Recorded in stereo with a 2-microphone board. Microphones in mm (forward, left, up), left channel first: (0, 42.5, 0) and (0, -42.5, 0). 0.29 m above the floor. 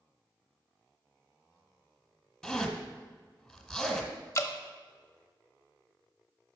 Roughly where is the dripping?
Left.